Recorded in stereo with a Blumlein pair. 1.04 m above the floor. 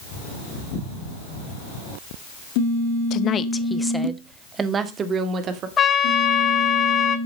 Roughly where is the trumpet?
Ahead.